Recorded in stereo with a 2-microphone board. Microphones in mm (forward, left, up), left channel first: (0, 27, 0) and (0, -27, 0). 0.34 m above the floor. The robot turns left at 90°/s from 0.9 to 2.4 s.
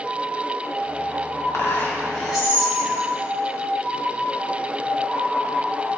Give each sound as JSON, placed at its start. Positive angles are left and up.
{"t": 1.5, "sound": "whispering", "azimuth_deg": 75, "distance_m": 2.5}